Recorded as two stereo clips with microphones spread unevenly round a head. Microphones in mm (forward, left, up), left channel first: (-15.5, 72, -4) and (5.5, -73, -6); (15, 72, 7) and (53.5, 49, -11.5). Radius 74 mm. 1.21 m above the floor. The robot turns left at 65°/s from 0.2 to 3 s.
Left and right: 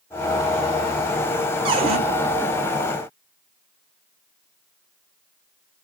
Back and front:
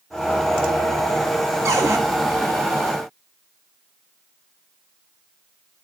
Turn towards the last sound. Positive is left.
turn(degrees=-135)